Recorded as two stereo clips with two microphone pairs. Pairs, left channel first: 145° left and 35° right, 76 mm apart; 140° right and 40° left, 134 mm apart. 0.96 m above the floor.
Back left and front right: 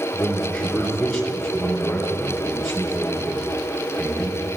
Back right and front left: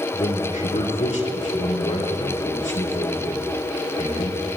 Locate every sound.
0.1 s a man speaking: 155° right, 3 m